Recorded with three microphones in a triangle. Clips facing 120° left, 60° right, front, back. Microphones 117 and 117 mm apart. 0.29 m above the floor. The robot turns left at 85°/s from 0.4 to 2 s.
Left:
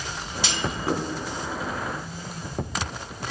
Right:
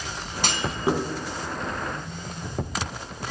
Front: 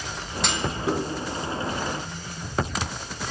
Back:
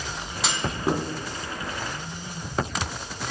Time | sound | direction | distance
0.4 | a clunk | 90° right | 3 m